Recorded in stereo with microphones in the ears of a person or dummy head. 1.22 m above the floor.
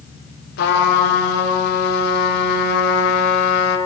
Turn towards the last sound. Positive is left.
turn(degrees=60)  # may be behind; listen again after turning